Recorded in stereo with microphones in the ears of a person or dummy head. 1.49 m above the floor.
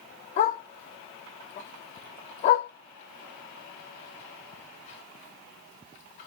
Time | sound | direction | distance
0.4 | a dog barking | 35° left (ahead or behind) | 1.2 m